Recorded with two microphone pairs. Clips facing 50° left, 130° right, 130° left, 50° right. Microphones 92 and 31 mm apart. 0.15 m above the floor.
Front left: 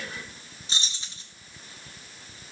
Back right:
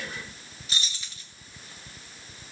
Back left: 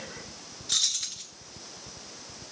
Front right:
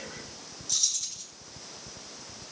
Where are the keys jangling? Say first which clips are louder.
Even, back left 4 dB; 105° left, 1.4 m.